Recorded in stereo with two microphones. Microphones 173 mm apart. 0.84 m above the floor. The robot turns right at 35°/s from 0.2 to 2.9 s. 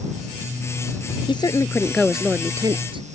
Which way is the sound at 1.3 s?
150° left.